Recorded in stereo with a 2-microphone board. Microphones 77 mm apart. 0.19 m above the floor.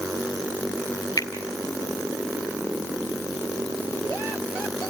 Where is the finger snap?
50° left (ahead or behind), 2 m.